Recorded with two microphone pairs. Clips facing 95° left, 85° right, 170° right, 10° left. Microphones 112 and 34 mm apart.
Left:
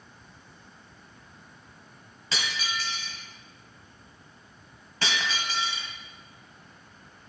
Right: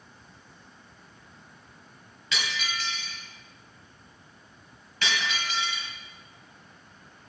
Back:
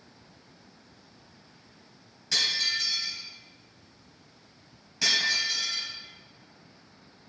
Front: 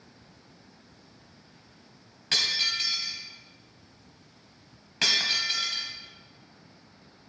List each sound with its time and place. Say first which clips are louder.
2.3 s breaking glass: even, front 1 dB; 45° left, 1.8 m